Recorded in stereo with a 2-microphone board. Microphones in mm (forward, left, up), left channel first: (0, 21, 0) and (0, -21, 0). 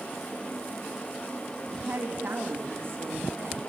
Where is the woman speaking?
50° right (ahead or behind), 2.5 m.